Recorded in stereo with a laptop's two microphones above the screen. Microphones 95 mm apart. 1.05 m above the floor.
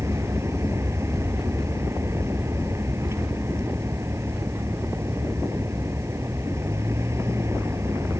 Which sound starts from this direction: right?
A vehicle, at 0.0 s.